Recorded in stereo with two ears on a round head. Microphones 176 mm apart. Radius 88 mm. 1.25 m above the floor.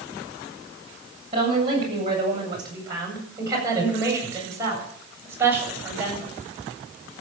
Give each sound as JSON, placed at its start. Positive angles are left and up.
{"t": 1.3, "sound": "a woman speaking", "side_deg": -25, "distance_m": 7.5}